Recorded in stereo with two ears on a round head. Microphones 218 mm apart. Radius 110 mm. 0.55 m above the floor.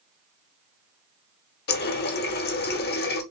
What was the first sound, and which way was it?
A running tap, 45° left (ahead or behind).